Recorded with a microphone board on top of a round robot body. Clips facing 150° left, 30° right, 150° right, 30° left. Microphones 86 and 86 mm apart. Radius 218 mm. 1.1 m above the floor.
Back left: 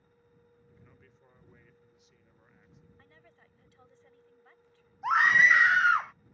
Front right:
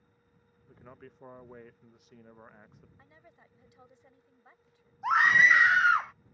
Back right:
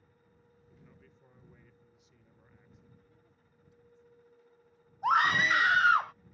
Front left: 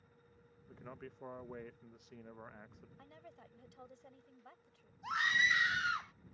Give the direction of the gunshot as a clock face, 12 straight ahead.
I don't hear a gunshot.